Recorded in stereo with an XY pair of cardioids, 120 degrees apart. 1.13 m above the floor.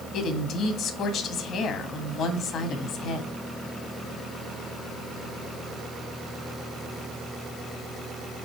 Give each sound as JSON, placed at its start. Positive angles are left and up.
{"t": 0.1, "sound": "a woman speaking", "azimuth_deg": 65, "distance_m": 1.6}